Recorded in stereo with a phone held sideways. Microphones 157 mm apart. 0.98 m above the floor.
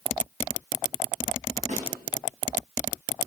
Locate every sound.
1.7 s a snare drum: 50° right (ahead or behind), 3.5 m